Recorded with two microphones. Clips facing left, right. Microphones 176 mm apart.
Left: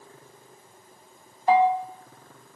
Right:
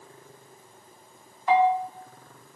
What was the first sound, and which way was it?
A bell, 40° left (ahead or behind).